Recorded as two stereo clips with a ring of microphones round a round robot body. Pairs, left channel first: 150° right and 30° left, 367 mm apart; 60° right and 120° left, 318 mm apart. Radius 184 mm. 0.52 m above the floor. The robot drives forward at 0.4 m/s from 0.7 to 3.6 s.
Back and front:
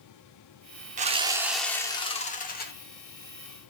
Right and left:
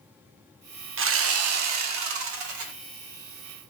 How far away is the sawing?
About 0.6 m.